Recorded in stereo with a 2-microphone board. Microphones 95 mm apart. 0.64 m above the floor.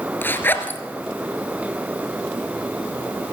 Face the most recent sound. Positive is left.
turn(degrees=20)  # may be behind; listen again after turning